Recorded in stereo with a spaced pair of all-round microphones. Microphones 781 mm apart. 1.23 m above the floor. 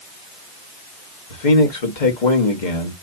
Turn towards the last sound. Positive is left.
turn(degrees=70)  # may be behind; listen again after turning